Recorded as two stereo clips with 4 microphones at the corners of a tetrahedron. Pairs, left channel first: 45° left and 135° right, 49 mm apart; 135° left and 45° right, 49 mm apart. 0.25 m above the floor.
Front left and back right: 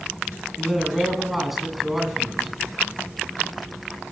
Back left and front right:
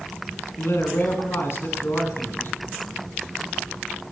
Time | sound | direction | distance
0.6 | a man speaking | 140° left | 3 m